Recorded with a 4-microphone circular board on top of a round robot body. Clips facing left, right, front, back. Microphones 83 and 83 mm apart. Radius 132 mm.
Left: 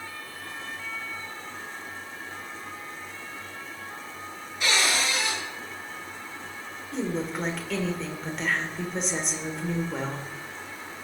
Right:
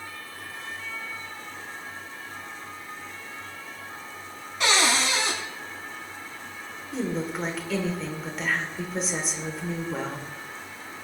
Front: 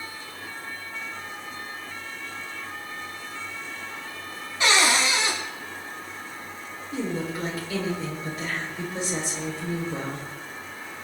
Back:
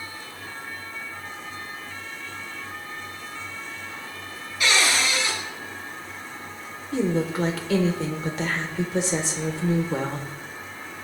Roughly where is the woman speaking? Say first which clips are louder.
Even, back 6 dB; behind.